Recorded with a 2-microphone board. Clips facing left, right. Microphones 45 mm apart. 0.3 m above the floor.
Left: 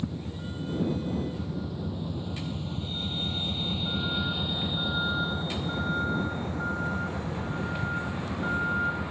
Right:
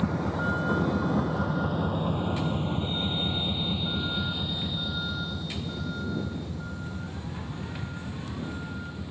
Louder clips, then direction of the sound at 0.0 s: Right 8 dB; 80° right.